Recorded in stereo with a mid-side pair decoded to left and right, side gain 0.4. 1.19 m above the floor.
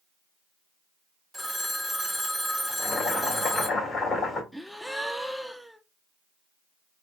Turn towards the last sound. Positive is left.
turn(degrees=0)